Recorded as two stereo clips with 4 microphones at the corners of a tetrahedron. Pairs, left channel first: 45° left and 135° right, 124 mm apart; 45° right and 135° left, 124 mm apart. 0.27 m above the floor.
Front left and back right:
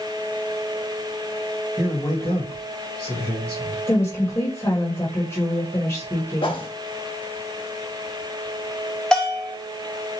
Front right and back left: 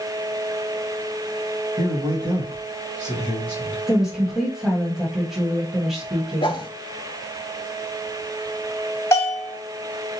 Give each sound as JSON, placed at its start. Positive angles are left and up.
{"t": 1.8, "sound": "a man speaking", "azimuth_deg": 120, "distance_m": 1.9}
{"t": 3.9, "sound": "a woman speaking", "azimuth_deg": 55, "distance_m": 1.1}
{"t": 6.4, "sound": "a whoosh", "azimuth_deg": 5, "distance_m": 0.5}
{"t": 9.1, "sound": "a bell", "azimuth_deg": -35, "distance_m": 1.6}